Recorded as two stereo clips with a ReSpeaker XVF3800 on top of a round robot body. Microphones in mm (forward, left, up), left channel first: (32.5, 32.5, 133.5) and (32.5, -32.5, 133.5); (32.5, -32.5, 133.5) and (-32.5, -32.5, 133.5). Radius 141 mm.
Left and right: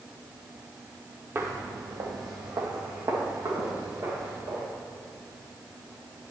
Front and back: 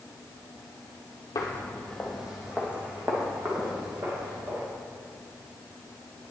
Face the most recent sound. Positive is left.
turn(degrees=-130)